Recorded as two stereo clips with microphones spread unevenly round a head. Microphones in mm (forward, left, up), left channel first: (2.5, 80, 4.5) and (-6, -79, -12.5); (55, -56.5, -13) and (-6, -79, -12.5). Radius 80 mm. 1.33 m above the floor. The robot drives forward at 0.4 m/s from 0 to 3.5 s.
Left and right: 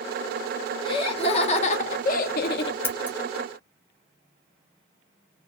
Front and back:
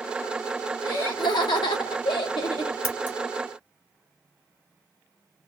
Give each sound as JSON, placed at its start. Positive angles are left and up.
{"t": 0.8, "sound": "laughter", "azimuth_deg": 25, "distance_m": 1.1}
{"t": 2.8, "sound": "scissors", "azimuth_deg": 25, "distance_m": 1.2}